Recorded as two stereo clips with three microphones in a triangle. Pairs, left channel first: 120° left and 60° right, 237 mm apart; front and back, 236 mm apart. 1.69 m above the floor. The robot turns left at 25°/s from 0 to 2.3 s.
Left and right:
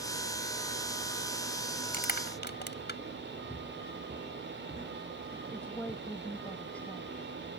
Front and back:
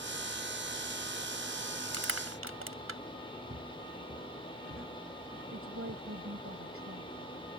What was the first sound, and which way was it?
Crushing, 170° left.